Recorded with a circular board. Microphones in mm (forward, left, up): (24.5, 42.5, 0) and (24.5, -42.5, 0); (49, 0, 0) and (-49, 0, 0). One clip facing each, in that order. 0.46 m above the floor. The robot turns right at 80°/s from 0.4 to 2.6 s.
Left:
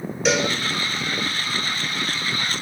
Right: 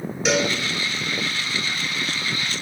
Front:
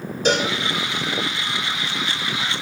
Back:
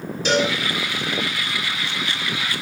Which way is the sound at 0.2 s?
Straight ahead.